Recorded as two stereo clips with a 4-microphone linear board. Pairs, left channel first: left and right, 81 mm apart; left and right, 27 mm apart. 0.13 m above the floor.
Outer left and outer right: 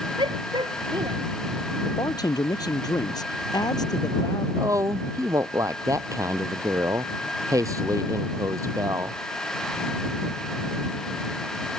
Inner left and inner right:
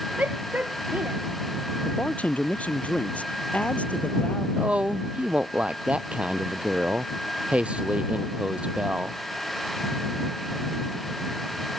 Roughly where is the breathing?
I don't hear breathing.